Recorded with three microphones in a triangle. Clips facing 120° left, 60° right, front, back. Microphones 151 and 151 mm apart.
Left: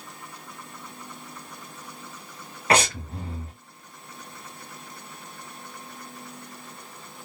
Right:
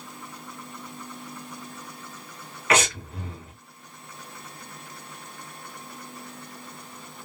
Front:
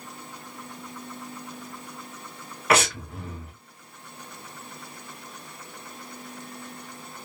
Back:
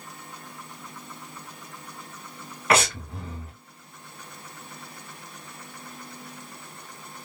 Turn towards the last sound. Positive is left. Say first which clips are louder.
# left 1 dB, even
turn(degrees=85)